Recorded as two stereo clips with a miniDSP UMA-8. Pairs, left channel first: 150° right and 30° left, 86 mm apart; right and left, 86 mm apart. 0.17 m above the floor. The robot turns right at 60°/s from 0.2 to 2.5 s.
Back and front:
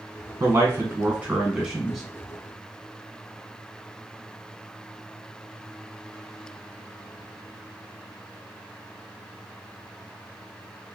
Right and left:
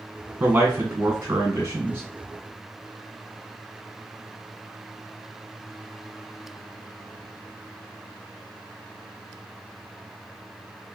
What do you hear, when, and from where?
0.4 s a man speaking: 30° left, 1.4 m; by 2.0 s 125° left, 1.4 m